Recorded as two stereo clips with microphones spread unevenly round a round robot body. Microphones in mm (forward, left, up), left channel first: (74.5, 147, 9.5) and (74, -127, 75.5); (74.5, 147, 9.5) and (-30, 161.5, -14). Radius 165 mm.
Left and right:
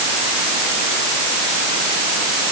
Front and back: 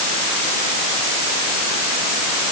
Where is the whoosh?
No whoosh in this recording.